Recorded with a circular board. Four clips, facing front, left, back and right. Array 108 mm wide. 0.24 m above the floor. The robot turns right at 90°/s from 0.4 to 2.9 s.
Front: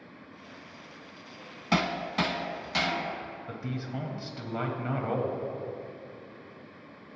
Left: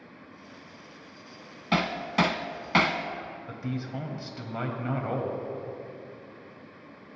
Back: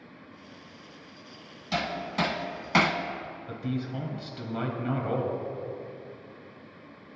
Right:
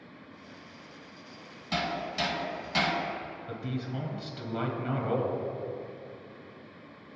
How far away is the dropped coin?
No dropped coin in this recording.